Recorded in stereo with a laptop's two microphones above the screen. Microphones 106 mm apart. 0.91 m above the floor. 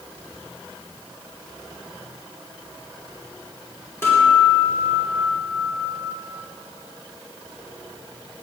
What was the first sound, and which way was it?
A guitar, 25° left (ahead or behind).